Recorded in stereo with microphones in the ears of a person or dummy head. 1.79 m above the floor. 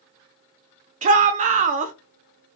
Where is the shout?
40° right (ahead or behind), 0.7 m.